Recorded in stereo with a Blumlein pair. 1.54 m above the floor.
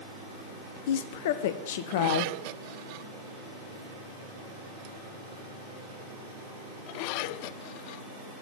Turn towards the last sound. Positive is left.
turn(degrees=55)